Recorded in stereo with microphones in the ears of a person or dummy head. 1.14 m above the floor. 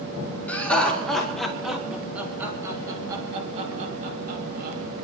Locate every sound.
0.5 s laughter: 10° left (ahead or behind), 4 m; by 4.8 s 55° right (ahead or behind), 2.5 m